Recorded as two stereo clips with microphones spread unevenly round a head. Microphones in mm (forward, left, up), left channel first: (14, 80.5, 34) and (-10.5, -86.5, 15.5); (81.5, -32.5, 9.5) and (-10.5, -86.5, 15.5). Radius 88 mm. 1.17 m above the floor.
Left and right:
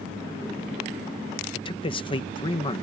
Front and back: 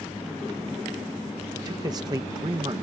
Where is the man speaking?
145° left.